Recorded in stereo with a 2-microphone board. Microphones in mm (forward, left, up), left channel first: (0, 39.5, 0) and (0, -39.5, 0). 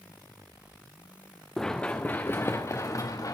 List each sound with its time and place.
1.6 s running footsteps: 5° left (ahead or behind), 1.2 m; by 3.3 s 45° left (ahead or behind), 1.8 m